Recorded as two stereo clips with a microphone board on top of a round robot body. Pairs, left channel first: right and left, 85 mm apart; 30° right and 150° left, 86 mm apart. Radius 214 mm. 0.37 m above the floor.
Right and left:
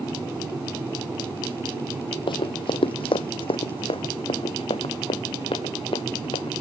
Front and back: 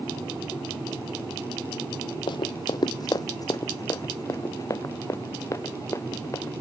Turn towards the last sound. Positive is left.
turn(degrees=-90)